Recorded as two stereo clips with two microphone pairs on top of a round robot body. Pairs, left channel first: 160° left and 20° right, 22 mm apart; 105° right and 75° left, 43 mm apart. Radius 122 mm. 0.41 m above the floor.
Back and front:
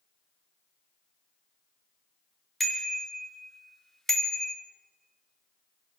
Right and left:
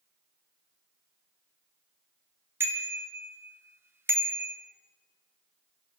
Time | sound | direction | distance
2.6 | a bicycle bell | 80° left | 3 m